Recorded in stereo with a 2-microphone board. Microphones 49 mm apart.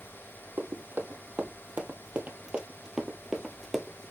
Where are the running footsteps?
50° right (ahead or behind), 2 m; by 4.1 s 15° left (ahead or behind), 1.4 m.